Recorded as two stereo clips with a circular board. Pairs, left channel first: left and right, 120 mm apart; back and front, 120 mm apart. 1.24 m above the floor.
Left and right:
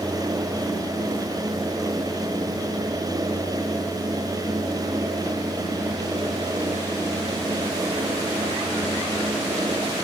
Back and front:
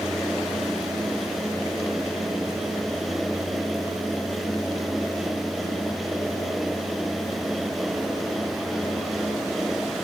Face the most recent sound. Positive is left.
No sound to turn to.